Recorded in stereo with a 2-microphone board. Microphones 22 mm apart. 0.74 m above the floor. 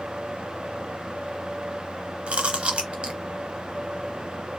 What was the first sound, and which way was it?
Chewing, 65° right (ahead or behind).